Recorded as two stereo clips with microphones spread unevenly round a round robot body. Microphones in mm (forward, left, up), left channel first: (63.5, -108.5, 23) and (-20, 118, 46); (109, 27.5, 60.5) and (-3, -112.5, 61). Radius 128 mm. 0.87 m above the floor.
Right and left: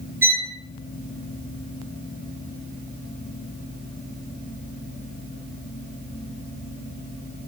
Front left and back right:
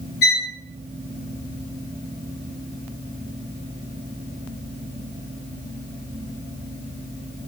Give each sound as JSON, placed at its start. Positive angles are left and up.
{"t": 0.2, "sound": "a violin", "azimuth_deg": 30, "distance_m": 1.4}